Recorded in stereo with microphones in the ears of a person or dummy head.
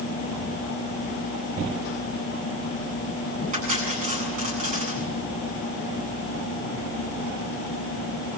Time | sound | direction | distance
3.5 | cutlery clinking | 45° right (ahead or behind) | 9 m